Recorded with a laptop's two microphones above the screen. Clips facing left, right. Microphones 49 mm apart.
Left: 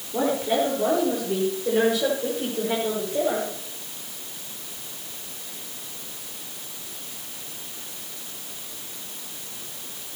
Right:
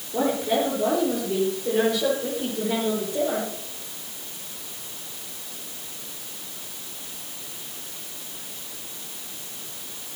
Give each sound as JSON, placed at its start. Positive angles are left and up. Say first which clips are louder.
{"t": 0.1, "sound": "a woman speaking", "louder": "even", "side_deg": 5, "distance_m": 4.0}